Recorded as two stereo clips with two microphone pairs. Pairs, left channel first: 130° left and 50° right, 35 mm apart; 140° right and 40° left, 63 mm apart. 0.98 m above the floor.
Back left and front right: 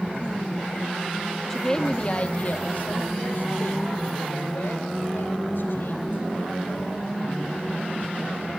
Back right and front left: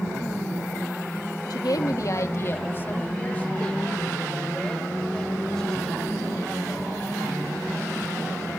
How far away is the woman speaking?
About 1.1 m.